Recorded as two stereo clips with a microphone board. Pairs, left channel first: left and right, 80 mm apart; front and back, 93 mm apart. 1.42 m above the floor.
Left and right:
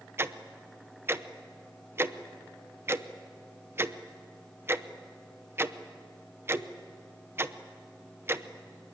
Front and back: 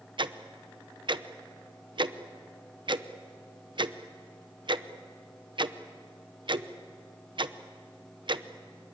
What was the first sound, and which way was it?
Ticking, 150° right.